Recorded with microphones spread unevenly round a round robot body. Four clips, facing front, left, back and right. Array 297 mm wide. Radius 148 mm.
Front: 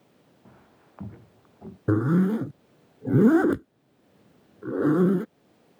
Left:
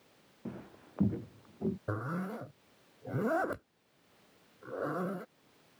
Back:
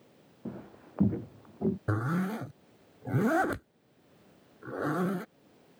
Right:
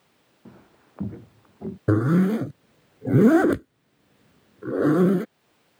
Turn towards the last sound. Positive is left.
turn(degrees=-55)